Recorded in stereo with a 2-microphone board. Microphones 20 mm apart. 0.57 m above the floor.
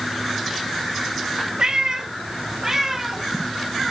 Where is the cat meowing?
50° right (ahead or behind), 1.1 m; by 3.9 s 10° right (ahead or behind), 1.8 m.